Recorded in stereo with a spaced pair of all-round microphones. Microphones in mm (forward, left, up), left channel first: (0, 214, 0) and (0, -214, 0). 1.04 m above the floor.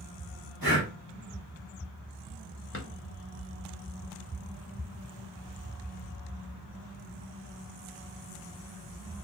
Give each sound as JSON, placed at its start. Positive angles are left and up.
{"t": 0.6, "sound": "breathing", "side_deg": -55, "distance_m": 1.5}
{"t": 2.7, "sound": "a drawer", "side_deg": 30, "distance_m": 0.8}